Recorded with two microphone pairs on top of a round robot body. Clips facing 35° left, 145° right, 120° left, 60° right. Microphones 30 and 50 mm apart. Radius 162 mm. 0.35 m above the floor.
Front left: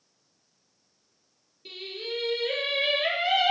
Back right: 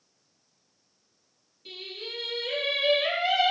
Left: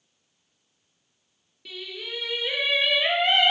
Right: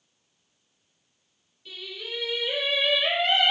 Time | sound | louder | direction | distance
1.6 | singing | front left 3 dB, left 1 dB | 105° left | 3 m